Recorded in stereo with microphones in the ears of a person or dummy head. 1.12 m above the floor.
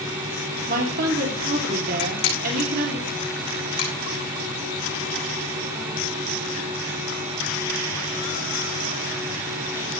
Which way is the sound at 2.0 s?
55° left (ahead or behind).